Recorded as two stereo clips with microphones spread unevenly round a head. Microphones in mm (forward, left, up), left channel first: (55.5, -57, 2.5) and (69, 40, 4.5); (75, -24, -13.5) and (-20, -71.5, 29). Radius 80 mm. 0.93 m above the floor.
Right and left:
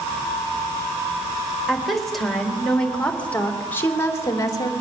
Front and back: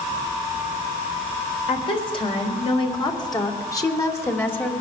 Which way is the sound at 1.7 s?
5° right.